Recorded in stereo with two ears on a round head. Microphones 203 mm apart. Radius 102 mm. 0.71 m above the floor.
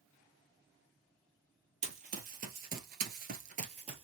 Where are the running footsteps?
30° right (ahead or behind), 1.3 m; by 4.0 s 25° right (ahead or behind), 1.1 m.